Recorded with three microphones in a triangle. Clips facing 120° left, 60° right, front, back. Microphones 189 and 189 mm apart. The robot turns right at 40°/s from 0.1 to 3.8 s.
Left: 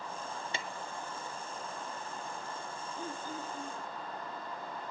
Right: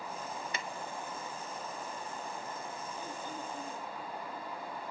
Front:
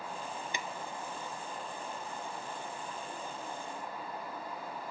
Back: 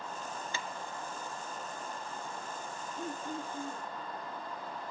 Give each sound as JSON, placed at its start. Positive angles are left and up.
{"t": 0.5, "sound": "a drawer", "azimuth_deg": 65, "distance_m": 0.7}
{"t": 3.0, "sound": "throat clearing", "azimuth_deg": -170, "distance_m": 8.5}